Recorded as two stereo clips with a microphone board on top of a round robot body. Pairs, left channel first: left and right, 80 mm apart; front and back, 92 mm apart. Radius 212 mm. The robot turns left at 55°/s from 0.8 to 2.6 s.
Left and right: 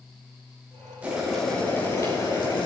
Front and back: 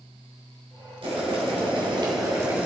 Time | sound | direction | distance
1.0 | boiling | 160° right | 4.5 m